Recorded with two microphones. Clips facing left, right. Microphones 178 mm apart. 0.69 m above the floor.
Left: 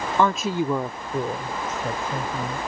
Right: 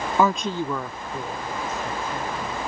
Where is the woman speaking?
10° right (ahead or behind); by 2.6 s 50° left (ahead or behind).